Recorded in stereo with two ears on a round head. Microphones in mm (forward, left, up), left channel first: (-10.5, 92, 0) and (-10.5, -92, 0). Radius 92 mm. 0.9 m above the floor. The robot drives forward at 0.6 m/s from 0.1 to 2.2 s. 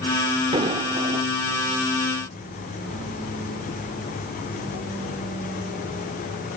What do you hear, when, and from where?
0.5 s an explosion: 25° right (ahead or behind); by 1.3 s 40° right (ahead or behind)